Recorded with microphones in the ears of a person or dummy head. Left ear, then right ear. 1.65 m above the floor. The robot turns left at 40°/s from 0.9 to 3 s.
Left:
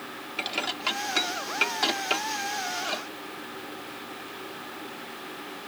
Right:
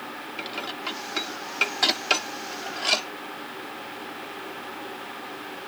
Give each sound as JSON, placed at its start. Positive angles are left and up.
{"t": 0.4, "sound": "dishes clattering", "side_deg": 20}